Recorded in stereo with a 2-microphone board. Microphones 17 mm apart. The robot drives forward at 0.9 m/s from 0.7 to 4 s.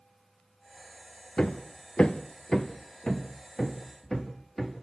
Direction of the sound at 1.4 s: 55° left (ahead or behind).